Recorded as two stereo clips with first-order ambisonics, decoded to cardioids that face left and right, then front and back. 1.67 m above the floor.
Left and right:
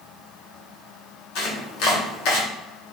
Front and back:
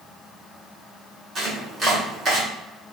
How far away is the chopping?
About 1.3 m.